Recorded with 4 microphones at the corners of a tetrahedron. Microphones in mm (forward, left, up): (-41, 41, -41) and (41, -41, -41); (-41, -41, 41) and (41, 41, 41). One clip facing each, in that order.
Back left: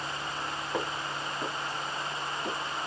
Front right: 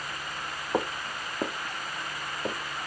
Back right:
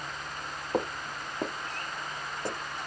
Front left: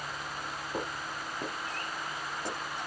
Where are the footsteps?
105° right, 0.6 m; by 2.6 s 75° right, 1.5 m.